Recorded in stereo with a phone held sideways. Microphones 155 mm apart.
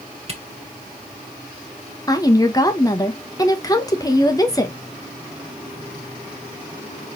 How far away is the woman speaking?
About 0.7 m.